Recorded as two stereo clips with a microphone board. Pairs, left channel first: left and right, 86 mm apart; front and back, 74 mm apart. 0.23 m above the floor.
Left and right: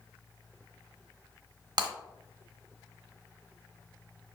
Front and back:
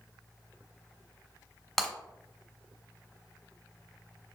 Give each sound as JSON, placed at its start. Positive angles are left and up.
{"t": 1.8, "sound": "breaking glass", "azimuth_deg": -85, "distance_m": 1.1}